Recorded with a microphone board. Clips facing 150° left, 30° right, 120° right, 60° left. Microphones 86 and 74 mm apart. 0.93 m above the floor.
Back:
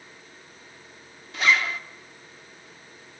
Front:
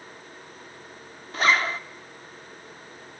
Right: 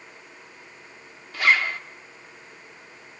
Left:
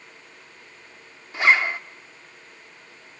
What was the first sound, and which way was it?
A zipper, 5° left.